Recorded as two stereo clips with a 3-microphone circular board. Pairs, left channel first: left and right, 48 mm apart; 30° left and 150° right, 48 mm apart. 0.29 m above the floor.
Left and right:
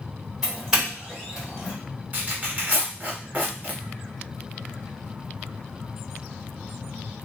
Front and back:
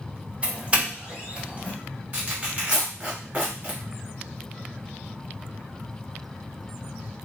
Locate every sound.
0.4 s a doorbell: 160° right, 1.7 m
2.1 s tearing paper: 115° right, 1.3 m